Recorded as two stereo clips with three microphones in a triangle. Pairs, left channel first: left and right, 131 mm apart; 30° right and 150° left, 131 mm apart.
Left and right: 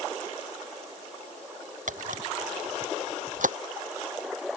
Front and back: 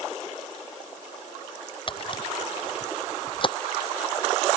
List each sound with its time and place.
1.9 s a camera shutter: 80° right